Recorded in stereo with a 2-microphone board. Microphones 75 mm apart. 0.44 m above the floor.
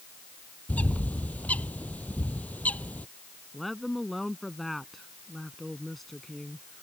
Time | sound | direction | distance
0.7 | a bird | 20° left (ahead or behind) | ?
3.5 | a woman speaking | centre (ahead or behind) | ?